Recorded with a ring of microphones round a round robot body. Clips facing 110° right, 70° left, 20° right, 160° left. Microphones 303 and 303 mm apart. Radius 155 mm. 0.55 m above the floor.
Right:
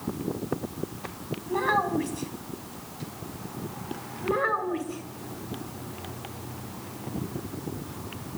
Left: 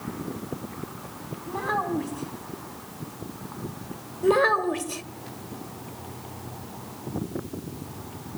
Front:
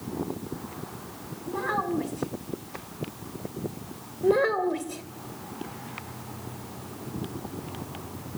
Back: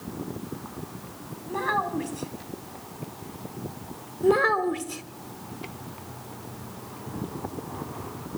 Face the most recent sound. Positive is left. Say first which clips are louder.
# left 7 dB, back 1 dB
turn(degrees=90)